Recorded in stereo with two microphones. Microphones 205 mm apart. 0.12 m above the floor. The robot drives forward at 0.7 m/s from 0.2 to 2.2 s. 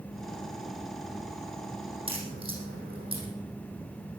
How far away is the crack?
About 5.5 m.